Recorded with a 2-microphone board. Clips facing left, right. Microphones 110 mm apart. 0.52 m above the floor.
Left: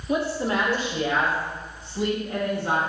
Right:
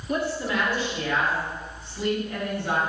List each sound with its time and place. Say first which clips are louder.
0.1 s a woman speaking: left 2 dB; 10° left (ahead or behind), 0.7 m; by 2.8 s 55° left (ahead or behind), 4 m